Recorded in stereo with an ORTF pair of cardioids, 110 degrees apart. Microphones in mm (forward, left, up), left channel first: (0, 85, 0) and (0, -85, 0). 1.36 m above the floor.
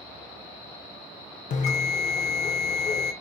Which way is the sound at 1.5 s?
50° left.